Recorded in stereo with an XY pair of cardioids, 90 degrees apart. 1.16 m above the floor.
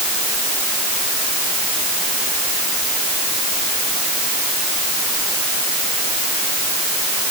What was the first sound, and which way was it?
Only background noise.